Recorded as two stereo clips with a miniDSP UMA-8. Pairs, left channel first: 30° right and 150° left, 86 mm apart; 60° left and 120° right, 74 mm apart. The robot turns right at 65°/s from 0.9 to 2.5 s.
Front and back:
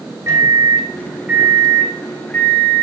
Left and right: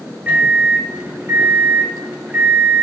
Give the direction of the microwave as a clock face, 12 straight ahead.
6 o'clock.